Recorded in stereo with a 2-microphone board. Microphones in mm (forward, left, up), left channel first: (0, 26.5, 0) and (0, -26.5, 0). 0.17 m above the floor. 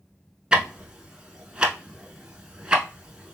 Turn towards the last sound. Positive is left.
turn(degrees=-15)  # may be behind; listen again after turning